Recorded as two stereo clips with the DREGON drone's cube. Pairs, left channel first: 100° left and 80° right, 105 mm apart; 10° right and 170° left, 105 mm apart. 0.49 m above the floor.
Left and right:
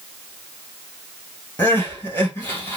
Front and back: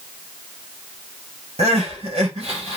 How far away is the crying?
About 1.7 m.